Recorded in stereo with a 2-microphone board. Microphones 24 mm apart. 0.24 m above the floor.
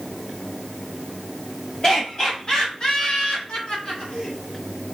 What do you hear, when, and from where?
1.8 s laughter: 25° left (ahead or behind), 1.3 m; by 4.3 s 60° left (ahead or behind), 2 m